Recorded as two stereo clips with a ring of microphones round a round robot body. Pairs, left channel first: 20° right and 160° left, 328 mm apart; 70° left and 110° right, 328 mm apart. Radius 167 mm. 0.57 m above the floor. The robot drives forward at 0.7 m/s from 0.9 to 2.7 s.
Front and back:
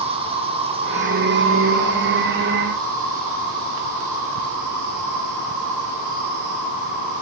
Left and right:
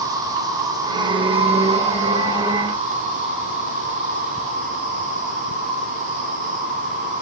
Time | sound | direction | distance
0.0 | an insect | 170° right | 0.9 m